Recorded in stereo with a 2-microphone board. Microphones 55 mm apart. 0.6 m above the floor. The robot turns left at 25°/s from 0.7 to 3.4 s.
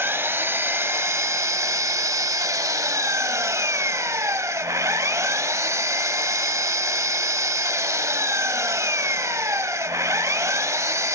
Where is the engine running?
50° right, 1.1 m; by 11.2 s 115° right, 1.1 m.